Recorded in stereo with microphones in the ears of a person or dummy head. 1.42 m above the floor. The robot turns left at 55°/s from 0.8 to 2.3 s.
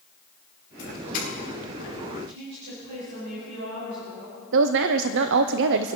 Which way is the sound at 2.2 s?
60° right (ahead or behind).